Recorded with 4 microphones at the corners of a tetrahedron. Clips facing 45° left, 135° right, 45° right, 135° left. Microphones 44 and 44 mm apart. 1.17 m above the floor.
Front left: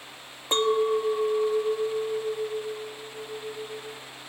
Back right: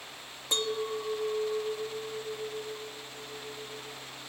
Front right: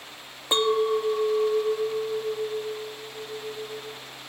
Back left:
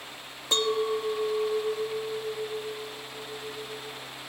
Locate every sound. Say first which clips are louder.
0.5 s a clink: front left 9 dB, front right 4 dB; 15° left, 0.6 m